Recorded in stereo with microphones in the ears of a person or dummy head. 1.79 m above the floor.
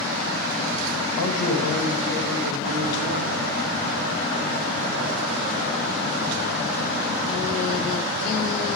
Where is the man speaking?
75° left (ahead or behind), 2 m.